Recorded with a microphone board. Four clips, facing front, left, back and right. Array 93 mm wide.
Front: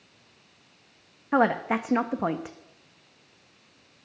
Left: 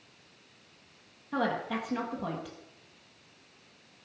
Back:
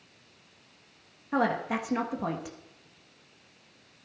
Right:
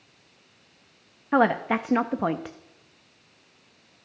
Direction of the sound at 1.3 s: 60° right.